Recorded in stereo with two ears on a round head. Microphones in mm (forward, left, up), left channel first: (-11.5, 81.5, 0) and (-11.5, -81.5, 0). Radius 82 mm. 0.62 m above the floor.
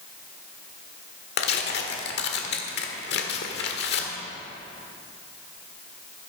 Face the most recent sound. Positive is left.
turn(degrees=65)  # may be behind; listen again after turning